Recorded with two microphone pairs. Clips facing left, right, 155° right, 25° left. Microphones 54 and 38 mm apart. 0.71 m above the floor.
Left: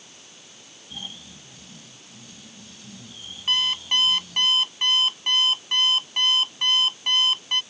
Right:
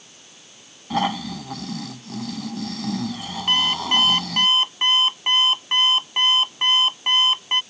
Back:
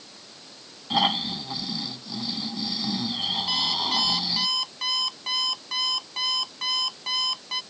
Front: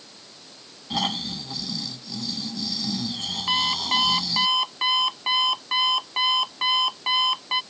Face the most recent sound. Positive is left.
turn(degrees=-35)